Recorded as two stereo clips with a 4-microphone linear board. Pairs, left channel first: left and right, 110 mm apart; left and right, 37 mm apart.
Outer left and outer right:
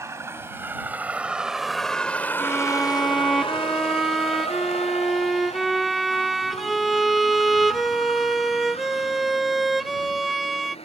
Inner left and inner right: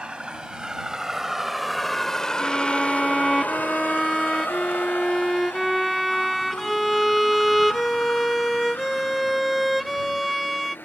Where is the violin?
Centre (ahead or behind).